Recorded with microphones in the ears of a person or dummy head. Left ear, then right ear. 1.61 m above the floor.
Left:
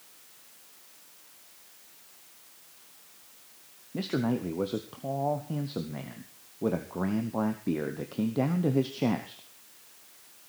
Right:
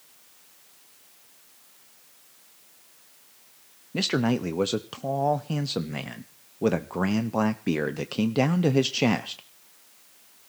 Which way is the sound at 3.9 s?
75° right (ahead or behind).